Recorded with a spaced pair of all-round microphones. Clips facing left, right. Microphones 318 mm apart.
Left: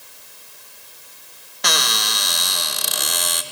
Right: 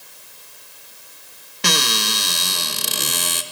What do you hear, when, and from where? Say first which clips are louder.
1.6 s a cupboard door: right 4 dB; 35° right (ahead or behind), 1.2 m